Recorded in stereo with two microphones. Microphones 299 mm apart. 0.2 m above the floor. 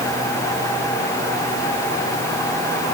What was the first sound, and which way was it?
Only background noise.